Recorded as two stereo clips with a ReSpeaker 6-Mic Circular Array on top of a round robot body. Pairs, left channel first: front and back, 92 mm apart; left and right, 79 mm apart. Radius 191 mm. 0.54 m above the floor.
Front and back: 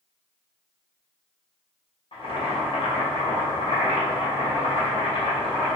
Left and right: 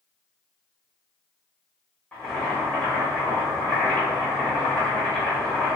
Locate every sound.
2.1 s boiling: 15° left, 1.4 m